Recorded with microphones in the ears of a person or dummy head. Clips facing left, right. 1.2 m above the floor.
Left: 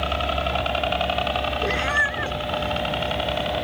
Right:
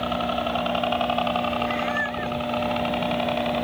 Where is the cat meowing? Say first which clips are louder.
Even; 70° left (ahead or behind).